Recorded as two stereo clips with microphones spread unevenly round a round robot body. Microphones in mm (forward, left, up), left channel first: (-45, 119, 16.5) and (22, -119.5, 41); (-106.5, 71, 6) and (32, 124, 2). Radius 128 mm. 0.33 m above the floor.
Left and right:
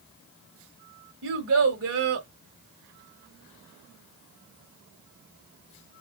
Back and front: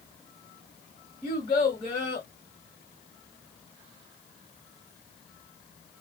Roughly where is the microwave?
I don't hear a microwave.